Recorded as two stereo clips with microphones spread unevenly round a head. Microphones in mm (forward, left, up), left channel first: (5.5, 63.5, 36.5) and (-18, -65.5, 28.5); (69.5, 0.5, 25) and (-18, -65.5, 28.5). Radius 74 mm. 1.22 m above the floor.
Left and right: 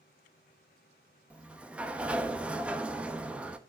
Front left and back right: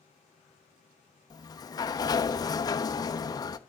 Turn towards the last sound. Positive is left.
turn(degrees=-15)